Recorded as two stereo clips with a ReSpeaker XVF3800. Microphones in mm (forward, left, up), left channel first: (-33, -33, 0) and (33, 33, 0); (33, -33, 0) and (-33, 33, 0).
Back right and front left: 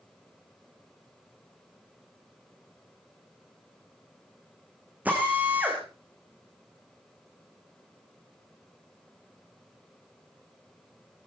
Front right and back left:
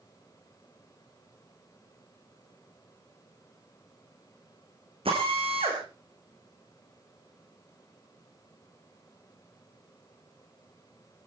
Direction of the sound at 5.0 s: 120° left.